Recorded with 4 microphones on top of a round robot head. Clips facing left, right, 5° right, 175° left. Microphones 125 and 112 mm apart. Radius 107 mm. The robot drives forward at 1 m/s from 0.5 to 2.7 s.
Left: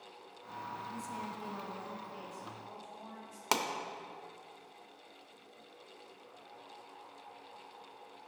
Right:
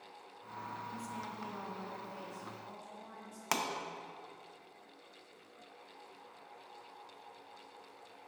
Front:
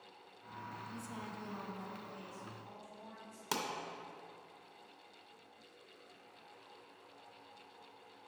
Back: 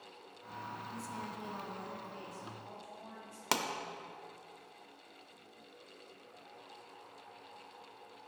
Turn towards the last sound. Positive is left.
turn(degrees=155)